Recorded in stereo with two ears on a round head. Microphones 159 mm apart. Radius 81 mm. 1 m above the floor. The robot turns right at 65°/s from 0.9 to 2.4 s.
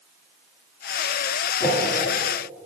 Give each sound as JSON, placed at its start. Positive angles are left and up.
{"t": 1.6, "sound": "a whoosh", "side_deg": 15, "distance_m": 2.5}